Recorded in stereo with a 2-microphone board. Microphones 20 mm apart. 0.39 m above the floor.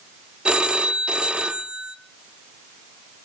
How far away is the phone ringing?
About 1.1 m.